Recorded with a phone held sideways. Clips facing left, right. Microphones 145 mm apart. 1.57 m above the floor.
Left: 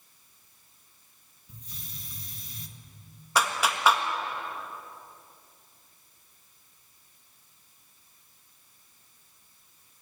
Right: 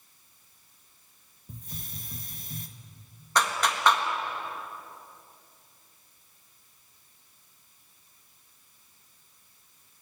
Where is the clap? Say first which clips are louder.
Even; 5° left (ahead or behind), 1.6 m.